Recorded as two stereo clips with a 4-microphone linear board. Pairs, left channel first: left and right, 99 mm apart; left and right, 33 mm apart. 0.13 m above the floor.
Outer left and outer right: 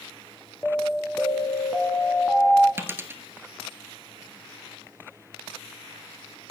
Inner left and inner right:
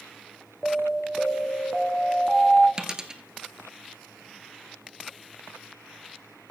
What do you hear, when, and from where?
0.6 s an alarm: 15° left (ahead or behind), 0.9 m
2.8 s a dropped coin: 25° right (ahead or behind), 1.1 m